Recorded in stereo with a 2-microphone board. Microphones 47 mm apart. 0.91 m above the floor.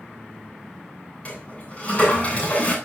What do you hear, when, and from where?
1.2 s a toilet flushing: 30° left (ahead or behind), 8.5 m